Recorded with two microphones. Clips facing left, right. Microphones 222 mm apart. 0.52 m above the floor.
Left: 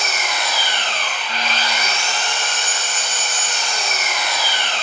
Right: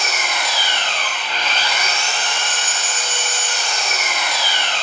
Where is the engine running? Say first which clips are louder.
Even; 50° right (ahead or behind), 1.1 m.